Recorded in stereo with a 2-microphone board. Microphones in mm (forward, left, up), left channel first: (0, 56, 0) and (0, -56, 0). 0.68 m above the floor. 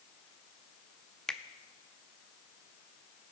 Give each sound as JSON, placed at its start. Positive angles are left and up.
{"t": 1.3, "sound": "a finger snap", "side_deg": 5, "distance_m": 0.6}